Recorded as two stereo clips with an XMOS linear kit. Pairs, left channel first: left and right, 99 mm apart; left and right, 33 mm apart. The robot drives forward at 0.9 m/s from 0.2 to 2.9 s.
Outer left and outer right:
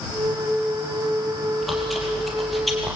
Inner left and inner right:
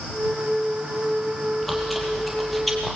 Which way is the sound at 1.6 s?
Centre (ahead or behind).